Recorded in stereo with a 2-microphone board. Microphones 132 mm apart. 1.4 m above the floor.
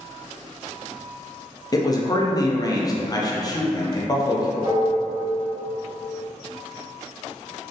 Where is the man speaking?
30° left (ahead or behind), 0.5 m.